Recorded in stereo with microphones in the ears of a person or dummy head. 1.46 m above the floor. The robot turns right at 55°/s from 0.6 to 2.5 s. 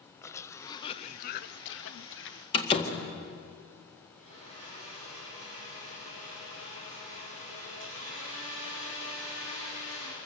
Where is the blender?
35° left (ahead or behind), 8.5 m.